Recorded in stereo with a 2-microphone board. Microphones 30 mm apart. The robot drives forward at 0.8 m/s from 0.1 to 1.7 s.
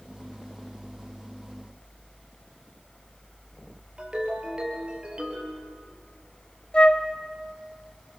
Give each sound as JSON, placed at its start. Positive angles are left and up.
{"t": 4.0, "sound": "a ringtone", "side_deg": -30, "distance_m": 4.0}
{"t": 6.7, "sound": "a flute", "side_deg": 35, "distance_m": 1.4}